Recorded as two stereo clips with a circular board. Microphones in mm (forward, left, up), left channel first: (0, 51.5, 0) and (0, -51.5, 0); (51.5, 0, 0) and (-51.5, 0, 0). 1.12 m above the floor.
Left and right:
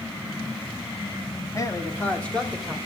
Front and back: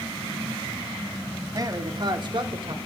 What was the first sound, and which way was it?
A man speaking, 135° left.